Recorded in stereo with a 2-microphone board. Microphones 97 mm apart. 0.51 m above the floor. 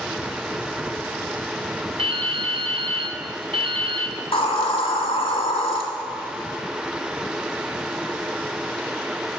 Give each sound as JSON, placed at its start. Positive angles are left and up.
{"t": 2.0, "sound": "dripping", "side_deg": -65, "distance_m": 0.8}
{"t": 4.2, "sound": "a hiss", "side_deg": 70, "distance_m": 1.2}